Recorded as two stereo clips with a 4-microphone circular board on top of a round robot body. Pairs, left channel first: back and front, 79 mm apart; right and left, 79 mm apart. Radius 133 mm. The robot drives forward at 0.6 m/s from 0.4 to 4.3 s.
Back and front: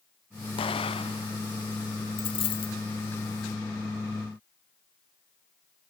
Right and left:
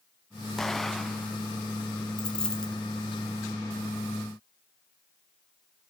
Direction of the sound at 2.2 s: 170° right.